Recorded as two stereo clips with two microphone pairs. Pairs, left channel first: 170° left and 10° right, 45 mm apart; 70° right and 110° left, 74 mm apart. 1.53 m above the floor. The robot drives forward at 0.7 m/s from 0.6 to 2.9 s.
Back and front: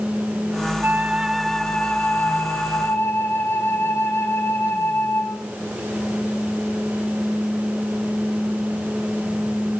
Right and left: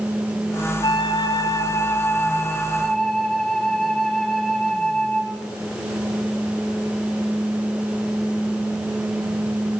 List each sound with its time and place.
0.8 s a flute: 60° right, 0.7 m; by 5.4 s 155° right, 1.3 m